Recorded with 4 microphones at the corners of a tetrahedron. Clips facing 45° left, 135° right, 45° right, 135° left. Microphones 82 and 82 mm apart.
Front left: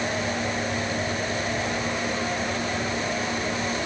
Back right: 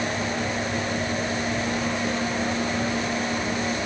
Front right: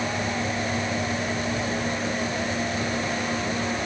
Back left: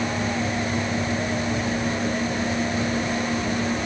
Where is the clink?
No clink in this recording.